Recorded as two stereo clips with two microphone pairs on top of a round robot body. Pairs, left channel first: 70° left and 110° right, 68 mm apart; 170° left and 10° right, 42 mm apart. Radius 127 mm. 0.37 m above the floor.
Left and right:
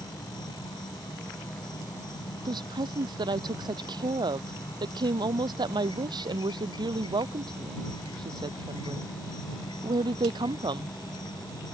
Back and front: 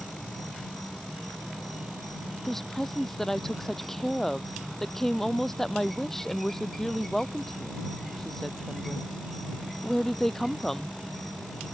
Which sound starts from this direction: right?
A woman speaking, at 2.5 s.